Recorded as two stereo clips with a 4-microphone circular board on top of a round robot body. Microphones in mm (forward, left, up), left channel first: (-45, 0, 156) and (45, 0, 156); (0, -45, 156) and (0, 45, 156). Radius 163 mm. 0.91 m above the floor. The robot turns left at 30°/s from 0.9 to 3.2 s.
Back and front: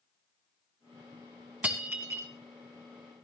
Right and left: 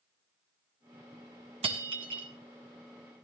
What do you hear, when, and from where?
1.6 s breaking glass: 75° left, 1.6 m; by 2.3 s 55° left, 1.6 m